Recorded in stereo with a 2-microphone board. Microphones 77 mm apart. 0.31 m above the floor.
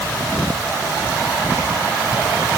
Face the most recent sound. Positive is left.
No sound to turn to.